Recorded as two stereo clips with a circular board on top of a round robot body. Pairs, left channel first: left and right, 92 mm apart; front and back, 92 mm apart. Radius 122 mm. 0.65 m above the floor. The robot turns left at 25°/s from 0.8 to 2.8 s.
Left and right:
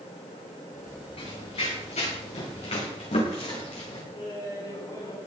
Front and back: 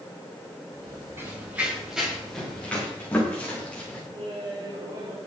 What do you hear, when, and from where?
1.2 s running footsteps: 115° left, 8.5 m; by 4.0 s 75° left, 7 m
4.1 s laughter: 140° left, 7.5 m